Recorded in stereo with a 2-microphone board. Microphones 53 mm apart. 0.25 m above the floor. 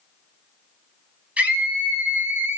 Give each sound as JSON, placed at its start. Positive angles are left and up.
{"t": 1.4, "sound": "a scream", "side_deg": -25, "distance_m": 2.5}